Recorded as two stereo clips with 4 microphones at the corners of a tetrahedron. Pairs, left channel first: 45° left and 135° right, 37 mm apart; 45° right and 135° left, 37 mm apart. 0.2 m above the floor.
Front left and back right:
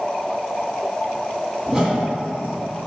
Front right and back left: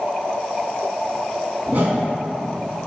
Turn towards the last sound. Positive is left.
turn(degrees=145)